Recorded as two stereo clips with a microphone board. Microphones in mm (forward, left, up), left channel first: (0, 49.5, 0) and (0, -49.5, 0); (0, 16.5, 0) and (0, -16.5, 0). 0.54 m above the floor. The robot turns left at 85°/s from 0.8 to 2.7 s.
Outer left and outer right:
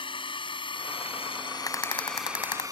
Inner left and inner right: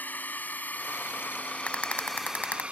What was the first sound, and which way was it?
A drone, 65° left (ahead or behind).